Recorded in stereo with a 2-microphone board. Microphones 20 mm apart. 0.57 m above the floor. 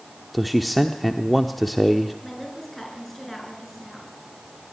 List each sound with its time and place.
0.3 s a man speaking: centre (ahead or behind), 1.0 m
2.2 s a woman speaking: 5° left (ahead or behind), 8.5 m